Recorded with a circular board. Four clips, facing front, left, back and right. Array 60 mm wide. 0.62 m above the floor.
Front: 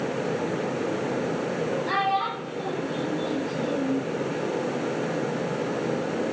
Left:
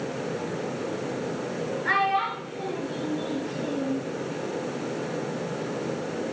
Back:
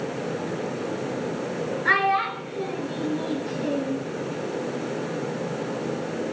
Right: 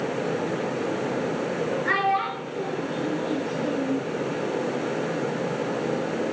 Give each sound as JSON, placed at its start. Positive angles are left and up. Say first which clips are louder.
{"t": 1.9, "sound": "a child speaking", "louder": "left 1 dB, back 6 dB", "azimuth_deg": 180, "distance_m": 4.5}